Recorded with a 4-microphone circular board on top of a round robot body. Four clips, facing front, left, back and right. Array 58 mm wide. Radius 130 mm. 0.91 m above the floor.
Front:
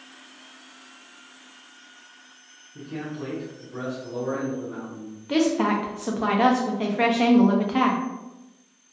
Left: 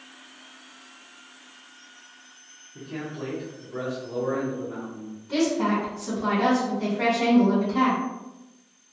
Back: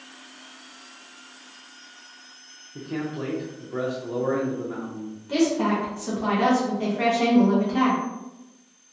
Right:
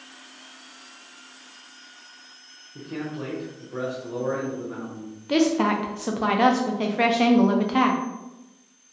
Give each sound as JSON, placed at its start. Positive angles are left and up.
{"t": 2.8, "sound": "a man speaking", "azimuth_deg": -160, "distance_m": 0.6}
{"t": 5.3, "sound": "a woman speaking", "azimuth_deg": -60, "distance_m": 0.6}